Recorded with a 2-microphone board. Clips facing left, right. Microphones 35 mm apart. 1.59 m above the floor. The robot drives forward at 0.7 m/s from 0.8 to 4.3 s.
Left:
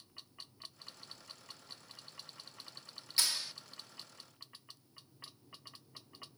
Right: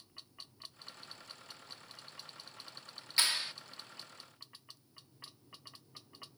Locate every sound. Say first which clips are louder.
3.2 s a clap: right 3 dB; 40° right (ahead or behind); by 3.5 s 45° right (ahead or behind)